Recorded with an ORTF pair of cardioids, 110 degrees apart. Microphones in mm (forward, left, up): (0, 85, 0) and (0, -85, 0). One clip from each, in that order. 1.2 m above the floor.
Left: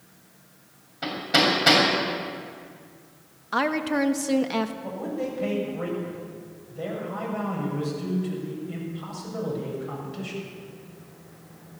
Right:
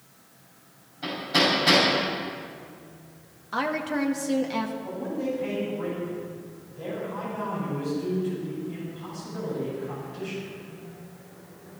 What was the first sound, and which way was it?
Hammering, 65° left.